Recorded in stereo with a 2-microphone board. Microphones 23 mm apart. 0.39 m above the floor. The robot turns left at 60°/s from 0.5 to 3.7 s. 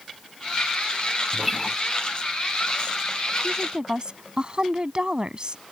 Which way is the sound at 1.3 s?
15° right (ahead or behind).